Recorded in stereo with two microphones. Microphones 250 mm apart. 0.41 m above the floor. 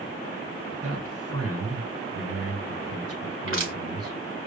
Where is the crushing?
55° right (ahead or behind), 3.5 m.